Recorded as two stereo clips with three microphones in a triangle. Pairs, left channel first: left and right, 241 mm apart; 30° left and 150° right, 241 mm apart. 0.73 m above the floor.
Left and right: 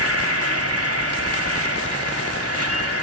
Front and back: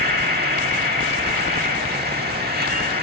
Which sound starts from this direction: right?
An insect, at 0.0 s.